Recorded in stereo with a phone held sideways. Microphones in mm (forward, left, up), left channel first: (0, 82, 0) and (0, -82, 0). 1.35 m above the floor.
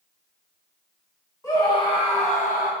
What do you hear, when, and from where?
1.4 s a scream: 20° left (ahead or behind), 1.3 m; by 2.7 s 55° left (ahead or behind), 1.1 m